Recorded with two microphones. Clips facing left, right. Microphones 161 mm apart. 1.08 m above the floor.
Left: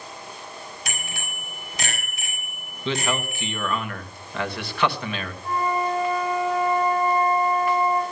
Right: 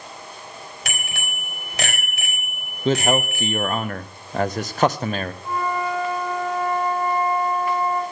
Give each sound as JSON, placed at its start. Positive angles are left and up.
{"t": 0.8, "sound": "a bicycle bell", "side_deg": -80, "distance_m": 4.5}
{"t": 2.9, "sound": "a man speaking", "side_deg": -45, "distance_m": 0.8}
{"t": 5.4, "sound": "a flute", "side_deg": 5, "distance_m": 5.0}